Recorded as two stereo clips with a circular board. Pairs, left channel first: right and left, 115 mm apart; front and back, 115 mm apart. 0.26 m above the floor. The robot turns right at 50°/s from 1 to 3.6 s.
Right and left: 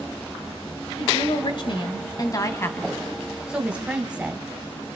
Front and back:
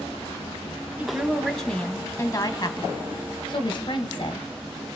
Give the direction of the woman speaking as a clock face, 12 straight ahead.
4 o'clock.